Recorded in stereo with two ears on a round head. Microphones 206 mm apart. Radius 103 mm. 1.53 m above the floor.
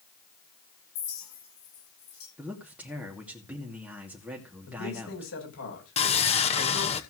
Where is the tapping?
No tapping in this recording.